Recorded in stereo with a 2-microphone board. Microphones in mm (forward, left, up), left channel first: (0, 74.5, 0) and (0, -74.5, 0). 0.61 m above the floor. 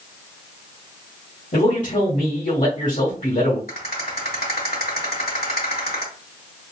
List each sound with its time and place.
1.5 s a man speaking: 55° left (ahead or behind), 1.4 m
3.7 s a rattle: 80° left, 1.9 m